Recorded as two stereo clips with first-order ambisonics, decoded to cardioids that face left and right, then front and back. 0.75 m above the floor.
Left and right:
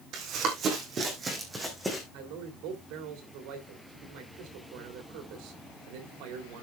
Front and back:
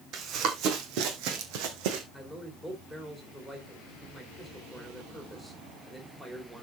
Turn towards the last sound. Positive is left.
turn(degrees=-95)